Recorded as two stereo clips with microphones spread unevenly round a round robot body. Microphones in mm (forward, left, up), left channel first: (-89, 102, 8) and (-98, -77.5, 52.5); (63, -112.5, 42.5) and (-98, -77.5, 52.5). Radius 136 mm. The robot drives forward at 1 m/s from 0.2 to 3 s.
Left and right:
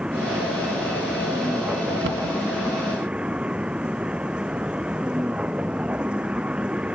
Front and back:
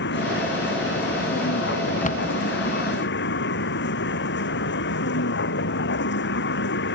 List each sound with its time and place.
0.0 s a vehicle: 5° right
2.0 s a cupboard door: 50° right; by 2.4 s 70° right